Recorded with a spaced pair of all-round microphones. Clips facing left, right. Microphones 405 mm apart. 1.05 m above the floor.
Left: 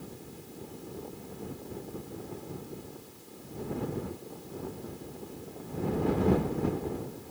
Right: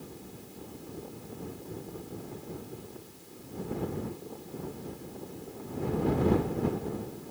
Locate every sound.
Only background noise.